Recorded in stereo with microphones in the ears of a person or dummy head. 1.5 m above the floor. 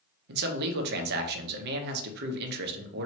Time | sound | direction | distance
0.3 | a man speaking | 55° right (ahead or behind) | 0.8 m